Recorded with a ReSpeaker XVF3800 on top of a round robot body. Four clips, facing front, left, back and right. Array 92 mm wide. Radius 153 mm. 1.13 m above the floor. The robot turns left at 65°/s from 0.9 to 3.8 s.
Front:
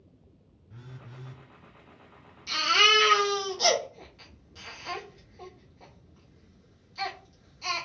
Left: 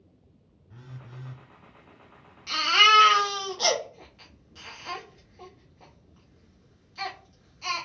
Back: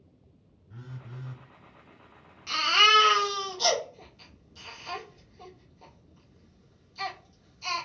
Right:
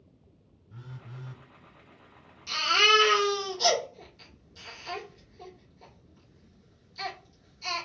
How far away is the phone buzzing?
About 0.9 m.